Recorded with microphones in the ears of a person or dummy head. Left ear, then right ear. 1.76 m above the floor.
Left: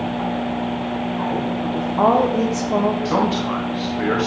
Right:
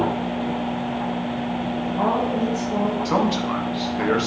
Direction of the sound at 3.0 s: 15° right (ahead or behind).